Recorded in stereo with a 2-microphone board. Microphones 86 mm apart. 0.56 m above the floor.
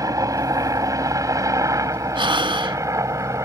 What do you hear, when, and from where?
0.0 s a helicopter: 40° right (ahead or behind); by 3.4 s 35° right (ahead or behind)
2.1 s breathing: 75° right (ahead or behind)